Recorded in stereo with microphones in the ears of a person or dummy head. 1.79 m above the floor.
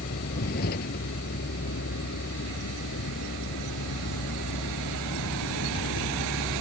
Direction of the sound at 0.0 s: 50° left (ahead or behind).